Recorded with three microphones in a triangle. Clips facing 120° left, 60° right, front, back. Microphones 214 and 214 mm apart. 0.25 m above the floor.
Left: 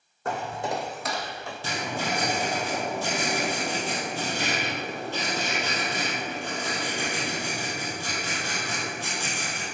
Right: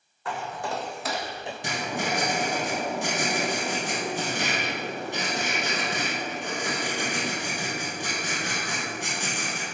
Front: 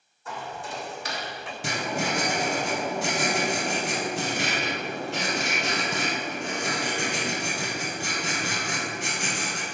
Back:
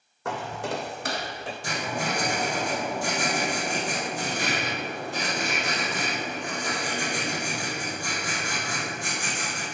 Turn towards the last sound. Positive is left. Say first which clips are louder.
# right 1 dB, front 2 dB
turn(degrees=15)